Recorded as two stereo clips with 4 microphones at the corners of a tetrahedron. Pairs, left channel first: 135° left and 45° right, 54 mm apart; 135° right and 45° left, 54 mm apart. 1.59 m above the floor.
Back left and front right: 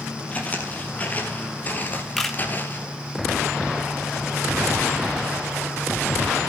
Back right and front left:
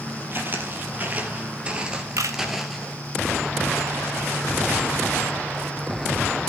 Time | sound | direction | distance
0.3 | footsteps | 80° left | 2.5 m
2.2 | a camera shutter | 50° left | 1.3 m